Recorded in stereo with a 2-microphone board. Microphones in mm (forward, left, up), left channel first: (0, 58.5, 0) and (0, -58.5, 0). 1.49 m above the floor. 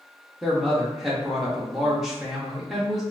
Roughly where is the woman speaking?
Centre.